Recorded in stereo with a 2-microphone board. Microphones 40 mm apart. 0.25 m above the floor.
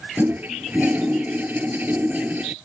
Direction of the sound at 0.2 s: 50° right (ahead or behind).